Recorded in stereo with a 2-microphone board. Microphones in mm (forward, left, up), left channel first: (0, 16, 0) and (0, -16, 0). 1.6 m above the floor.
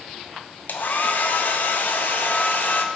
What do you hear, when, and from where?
0.7 s a hair dryer: 65° left (ahead or behind), 0.6 m